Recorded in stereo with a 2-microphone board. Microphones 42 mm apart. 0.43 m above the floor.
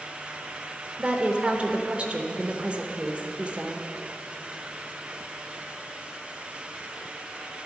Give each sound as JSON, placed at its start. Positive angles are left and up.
{"t": 1.0, "sound": "a woman speaking", "side_deg": -30, "distance_m": 1.0}